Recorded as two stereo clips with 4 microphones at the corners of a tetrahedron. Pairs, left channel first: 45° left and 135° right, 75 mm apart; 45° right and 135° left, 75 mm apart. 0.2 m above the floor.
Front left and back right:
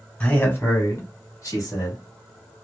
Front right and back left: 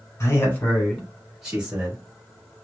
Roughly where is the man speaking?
Ahead.